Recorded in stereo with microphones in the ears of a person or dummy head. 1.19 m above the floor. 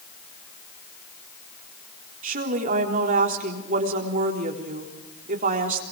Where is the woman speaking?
45° right (ahead or behind), 3.5 m.